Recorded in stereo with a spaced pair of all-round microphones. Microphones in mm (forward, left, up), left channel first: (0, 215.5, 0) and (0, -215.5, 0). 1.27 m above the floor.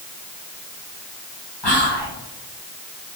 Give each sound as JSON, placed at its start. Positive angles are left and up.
{"t": 1.6, "sound": "whispering", "side_deg": 70, "distance_m": 1.4}